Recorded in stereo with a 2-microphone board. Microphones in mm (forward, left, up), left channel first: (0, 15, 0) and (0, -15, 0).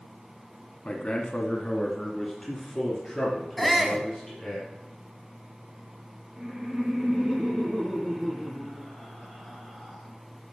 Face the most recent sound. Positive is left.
turn(degrees=-15)  # may be behind; listen again after turning